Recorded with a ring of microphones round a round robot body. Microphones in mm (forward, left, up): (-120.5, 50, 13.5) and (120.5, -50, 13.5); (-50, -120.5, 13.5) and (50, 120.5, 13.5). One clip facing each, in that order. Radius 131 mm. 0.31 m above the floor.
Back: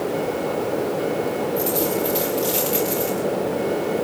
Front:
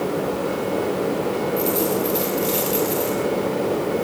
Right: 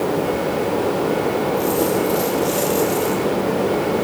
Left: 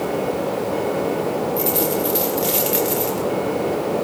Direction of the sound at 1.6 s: 70° left.